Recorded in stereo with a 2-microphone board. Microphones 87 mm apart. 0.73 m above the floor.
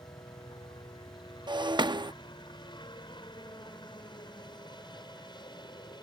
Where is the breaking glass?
60° right (ahead or behind).